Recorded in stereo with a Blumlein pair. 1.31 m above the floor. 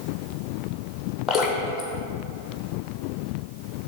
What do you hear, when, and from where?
1.3 s dripping: 20° left, 1.1 m